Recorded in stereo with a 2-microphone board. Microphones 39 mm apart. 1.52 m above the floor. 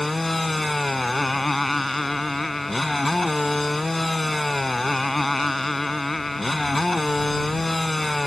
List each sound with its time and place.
0.0 s a motorcycle: 5° left (ahead or behind)